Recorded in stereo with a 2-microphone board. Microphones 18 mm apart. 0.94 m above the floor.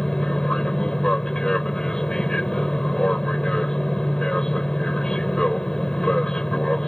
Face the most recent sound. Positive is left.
turn(degrees=40)  # may be behind; listen again after turning